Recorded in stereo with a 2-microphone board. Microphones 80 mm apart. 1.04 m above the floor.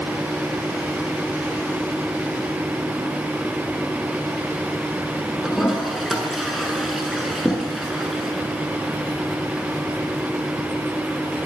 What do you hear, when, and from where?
5.4 s a toilet flushing: centre (ahead or behind), 7.5 m